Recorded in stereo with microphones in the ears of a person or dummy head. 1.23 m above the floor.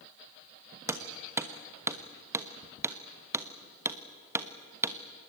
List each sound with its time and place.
0.9 s hammering: 15° right (ahead or behind), 1.1 m